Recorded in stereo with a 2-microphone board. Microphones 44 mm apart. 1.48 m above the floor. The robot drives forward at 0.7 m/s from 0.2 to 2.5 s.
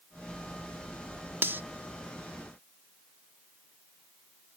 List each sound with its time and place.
1.4 s cutlery clinking: 60° right (ahead or behind)